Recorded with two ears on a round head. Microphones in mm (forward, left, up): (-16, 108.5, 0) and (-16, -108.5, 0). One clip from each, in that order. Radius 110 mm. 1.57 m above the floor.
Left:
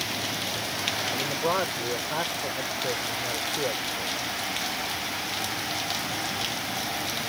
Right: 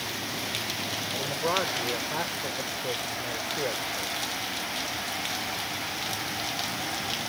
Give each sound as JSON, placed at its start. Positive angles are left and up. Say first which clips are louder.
{"t": 1.1, "sound": "a man speaking", "louder": "right 2 dB", "side_deg": 0}